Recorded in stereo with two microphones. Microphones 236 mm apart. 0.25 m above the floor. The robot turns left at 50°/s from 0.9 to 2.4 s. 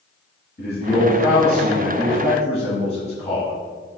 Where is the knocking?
I don't hear knocking.